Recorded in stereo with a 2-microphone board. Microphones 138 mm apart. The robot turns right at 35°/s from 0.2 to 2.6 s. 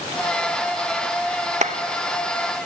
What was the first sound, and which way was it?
A clap, 60° right (ahead or behind).